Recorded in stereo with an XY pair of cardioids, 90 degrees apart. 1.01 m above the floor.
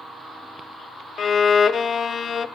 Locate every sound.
1.2 s a violin: 65° left, 0.6 m